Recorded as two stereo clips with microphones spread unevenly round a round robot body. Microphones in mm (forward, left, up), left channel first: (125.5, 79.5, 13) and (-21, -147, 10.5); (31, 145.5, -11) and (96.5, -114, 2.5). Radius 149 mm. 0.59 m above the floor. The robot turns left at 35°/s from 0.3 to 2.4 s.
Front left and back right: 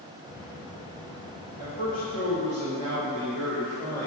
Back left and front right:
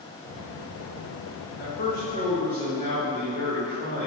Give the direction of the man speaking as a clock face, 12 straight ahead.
10 o'clock.